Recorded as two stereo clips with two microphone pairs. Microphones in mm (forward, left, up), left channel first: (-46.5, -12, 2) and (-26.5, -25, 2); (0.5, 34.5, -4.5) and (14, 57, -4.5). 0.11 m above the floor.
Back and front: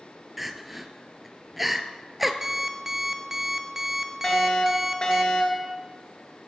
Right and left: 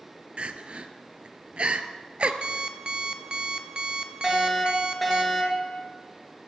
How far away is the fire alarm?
About 2.5 m.